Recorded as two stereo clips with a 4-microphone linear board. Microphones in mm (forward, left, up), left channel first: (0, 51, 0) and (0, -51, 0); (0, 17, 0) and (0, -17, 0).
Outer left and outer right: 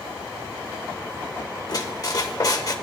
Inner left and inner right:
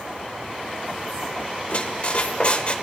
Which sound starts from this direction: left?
A squeak, at 1.7 s.